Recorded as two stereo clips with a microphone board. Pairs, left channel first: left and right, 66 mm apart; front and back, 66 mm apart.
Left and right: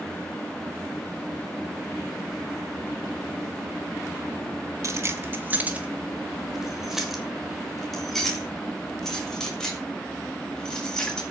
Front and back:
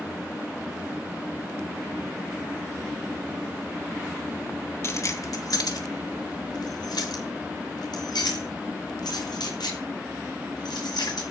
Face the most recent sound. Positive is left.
turn(degrees=10)